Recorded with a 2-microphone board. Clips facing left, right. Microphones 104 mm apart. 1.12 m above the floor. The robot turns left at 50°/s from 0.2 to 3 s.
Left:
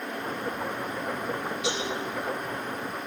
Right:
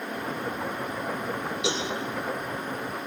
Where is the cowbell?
75° right (ahead or behind), 5.5 m; by 1.9 s 65° right (ahead or behind), 5.5 m.